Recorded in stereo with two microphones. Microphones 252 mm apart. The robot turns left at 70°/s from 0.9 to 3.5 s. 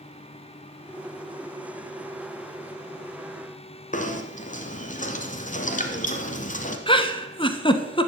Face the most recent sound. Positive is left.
turn(degrees=20)  # may be behind; listen again after turning